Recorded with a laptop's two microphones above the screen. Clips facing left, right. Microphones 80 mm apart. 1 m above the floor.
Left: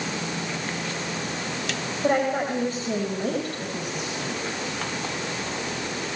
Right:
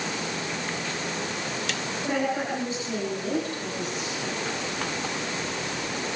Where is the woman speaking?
50° left (ahead or behind), 5.5 m; by 4.4 s 60° left (ahead or behind), 7.5 m.